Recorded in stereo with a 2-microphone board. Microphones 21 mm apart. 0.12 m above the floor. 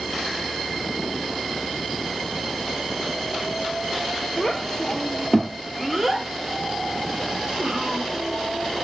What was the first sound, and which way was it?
A child speaking, 25° left (ahead or behind).